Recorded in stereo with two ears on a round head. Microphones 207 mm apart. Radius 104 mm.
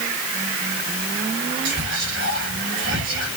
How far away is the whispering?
About 2.5 m.